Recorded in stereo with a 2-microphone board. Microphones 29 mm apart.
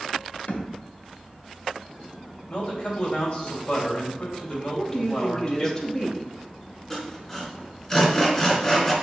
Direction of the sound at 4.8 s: 25° left (ahead or behind).